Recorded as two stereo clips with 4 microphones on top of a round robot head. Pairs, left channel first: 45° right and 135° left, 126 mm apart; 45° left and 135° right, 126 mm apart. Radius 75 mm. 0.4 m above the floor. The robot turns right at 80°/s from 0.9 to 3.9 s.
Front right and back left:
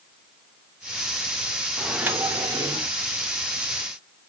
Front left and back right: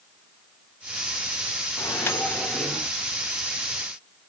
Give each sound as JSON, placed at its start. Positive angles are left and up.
{"t": 1.8, "sound": "a microwave", "azimuth_deg": 65, "distance_m": 0.8}